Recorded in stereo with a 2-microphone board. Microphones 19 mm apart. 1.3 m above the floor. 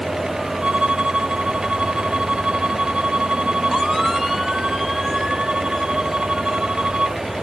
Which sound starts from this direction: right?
A violin, at 0.6 s.